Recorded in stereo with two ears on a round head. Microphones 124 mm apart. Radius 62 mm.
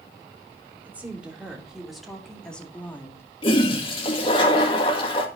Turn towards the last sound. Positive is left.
turn(degrees=40)  # may be behind; listen again after turning